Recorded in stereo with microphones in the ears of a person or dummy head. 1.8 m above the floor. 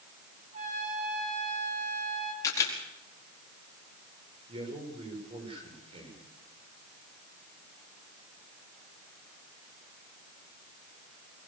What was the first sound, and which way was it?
A trumpet, 45° right (ahead or behind).